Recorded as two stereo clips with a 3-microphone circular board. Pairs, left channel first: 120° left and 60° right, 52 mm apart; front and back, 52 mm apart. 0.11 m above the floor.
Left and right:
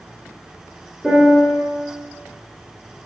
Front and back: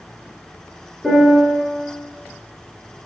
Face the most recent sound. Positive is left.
turn(degrees=-105)